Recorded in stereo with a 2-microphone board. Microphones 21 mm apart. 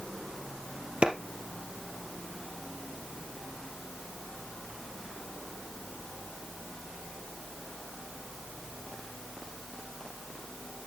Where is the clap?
65° right (ahead or behind), 3 m.